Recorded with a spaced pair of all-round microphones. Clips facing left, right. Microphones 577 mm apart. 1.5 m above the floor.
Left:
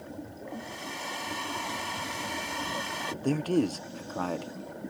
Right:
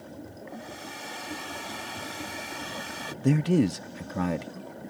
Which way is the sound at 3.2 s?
45° right (ahead or behind).